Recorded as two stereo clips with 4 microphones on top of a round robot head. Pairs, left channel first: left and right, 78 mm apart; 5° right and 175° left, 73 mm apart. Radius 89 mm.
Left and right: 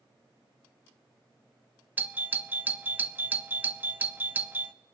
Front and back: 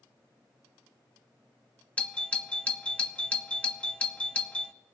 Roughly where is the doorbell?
Ahead right.